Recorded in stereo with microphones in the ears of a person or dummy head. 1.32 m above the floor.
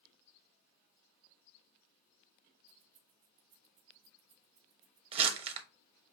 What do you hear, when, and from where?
2.7 s keys jangling: 40° right (ahead or behind), 0.8 m
5.1 s crumpling: 30° right (ahead or behind), 1.0 m